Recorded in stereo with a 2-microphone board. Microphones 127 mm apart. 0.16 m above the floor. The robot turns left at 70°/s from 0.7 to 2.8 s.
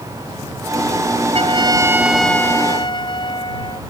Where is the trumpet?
120° right; by 3.8 s 135° left.